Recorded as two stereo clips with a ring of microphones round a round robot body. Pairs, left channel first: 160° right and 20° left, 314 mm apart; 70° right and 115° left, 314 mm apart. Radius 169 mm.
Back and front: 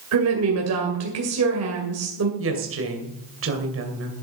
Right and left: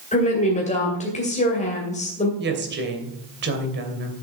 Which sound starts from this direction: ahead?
A woman speaking, at 0.1 s.